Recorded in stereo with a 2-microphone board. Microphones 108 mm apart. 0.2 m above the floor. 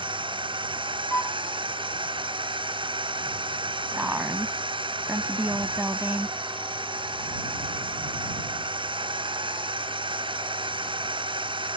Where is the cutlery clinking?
I don't hear cutlery clinking.